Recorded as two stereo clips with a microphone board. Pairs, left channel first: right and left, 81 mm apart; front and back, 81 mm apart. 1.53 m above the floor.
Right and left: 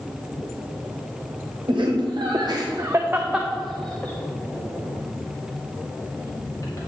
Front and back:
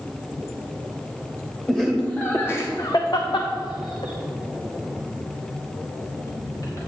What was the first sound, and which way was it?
Laughter, 80° left.